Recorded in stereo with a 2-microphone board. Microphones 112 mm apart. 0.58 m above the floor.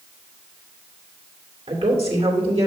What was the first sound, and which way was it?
A woman speaking, 60° right (ahead or behind).